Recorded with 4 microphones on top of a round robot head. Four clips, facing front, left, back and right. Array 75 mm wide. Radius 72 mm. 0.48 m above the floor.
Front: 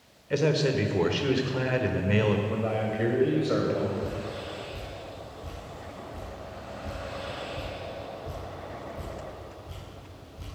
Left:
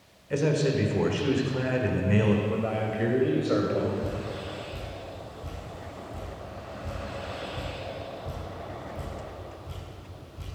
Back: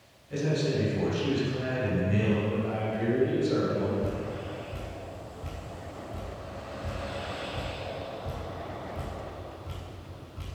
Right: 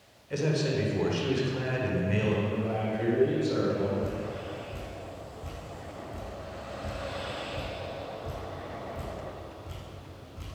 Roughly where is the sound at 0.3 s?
Ahead left.